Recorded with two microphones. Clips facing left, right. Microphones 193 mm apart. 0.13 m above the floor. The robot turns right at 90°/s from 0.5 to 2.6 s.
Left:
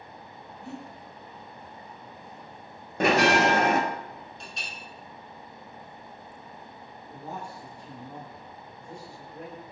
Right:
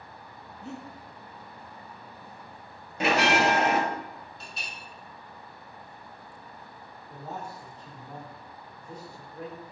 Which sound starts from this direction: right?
Breathing, at 0.6 s.